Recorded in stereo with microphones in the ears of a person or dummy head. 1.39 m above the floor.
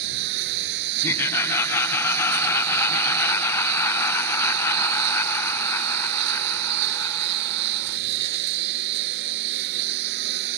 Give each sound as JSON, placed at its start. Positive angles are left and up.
{"t": 0.0, "sound": "a lawn mower", "side_deg": -60}
{"t": 1.0, "sound": "laughter", "side_deg": 10}